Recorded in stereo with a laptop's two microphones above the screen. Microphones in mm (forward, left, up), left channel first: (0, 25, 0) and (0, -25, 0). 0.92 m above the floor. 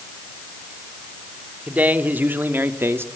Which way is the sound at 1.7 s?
30° right (ahead or behind).